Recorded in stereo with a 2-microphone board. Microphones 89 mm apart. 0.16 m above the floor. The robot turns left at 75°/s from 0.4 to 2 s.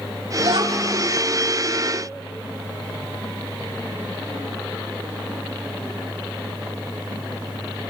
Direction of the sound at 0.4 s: 85° right.